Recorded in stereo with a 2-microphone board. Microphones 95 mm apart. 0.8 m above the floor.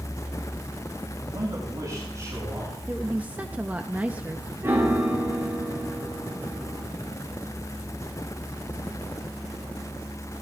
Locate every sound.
1.2 s a man speaking: 40° right (ahead or behind), 7 m; by 2.8 s 25° right (ahead or behind), 7.5 m
2.9 s a woman speaking: 15° right (ahead or behind), 0.7 m
4.6 s a piano: 25° right (ahead or behind), 2.5 m